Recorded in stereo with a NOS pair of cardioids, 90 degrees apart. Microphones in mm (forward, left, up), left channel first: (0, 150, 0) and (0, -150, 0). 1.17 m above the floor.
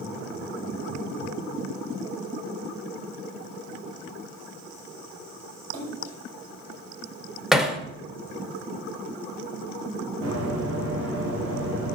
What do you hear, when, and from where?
5.7 s a splash: 55° right, 7 m
7.5 s hammering: straight ahead, 1.9 m
10.2 s running footsteps: 50° right, 5 m